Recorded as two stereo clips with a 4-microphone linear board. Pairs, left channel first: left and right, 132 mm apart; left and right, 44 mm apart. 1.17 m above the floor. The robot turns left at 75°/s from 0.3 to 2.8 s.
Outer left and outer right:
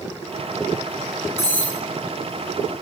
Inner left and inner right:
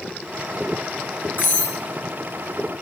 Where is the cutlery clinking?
50° left (ahead or behind), 0.8 m; by 1.8 s 25° left (ahead or behind), 0.8 m.